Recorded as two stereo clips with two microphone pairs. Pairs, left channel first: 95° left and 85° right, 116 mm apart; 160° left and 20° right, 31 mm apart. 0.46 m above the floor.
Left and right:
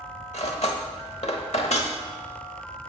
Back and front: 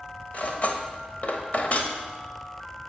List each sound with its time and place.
0.3 s cutlery clinking: 120° left, 1.0 m